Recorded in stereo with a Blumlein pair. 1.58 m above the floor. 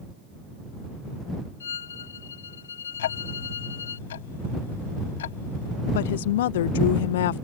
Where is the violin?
65° left.